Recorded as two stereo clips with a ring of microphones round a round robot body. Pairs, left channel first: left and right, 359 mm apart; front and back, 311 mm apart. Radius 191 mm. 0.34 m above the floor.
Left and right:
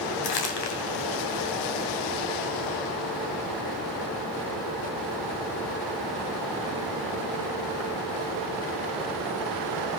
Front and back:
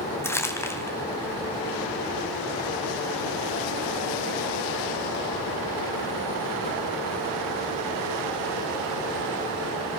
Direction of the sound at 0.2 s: 80° left.